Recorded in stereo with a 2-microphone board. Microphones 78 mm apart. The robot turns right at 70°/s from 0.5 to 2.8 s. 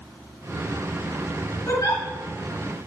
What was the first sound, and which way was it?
A giggle, 40° left (ahead or behind).